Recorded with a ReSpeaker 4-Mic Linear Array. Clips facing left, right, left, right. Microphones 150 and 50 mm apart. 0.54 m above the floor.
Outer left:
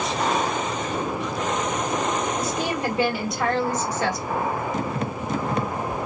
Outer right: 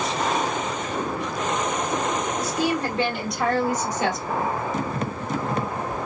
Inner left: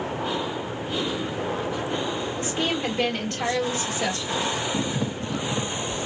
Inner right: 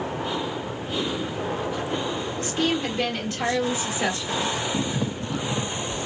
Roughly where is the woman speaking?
Left.